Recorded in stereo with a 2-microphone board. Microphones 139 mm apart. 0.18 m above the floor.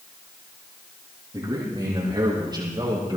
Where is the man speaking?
30° right (ahead or behind), 6.5 m.